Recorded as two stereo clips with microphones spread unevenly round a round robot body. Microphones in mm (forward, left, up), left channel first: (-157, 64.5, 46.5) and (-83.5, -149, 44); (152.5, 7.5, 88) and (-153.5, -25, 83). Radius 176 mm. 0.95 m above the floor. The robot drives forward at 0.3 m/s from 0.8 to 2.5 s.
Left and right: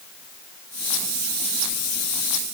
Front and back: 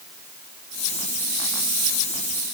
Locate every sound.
Only background noise.